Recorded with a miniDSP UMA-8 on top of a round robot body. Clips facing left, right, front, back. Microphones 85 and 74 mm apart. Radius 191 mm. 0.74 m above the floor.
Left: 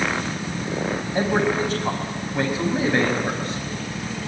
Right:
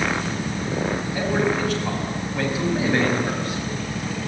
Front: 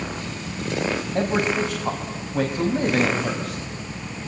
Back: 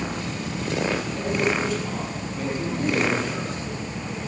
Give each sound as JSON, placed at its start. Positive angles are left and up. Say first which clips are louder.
{"t": 1.1, "sound": "a man speaking", "louder": "left 2 dB, front 4 dB", "azimuth_deg": 25, "distance_m": 5.5}